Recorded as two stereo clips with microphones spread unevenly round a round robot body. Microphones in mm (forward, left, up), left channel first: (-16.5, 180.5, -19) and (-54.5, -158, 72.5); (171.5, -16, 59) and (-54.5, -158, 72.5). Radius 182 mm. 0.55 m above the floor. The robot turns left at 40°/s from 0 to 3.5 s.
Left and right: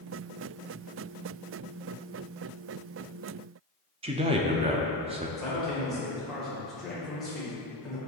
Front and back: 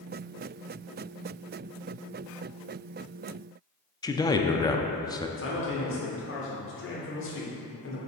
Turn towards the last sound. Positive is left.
turn(degrees=0)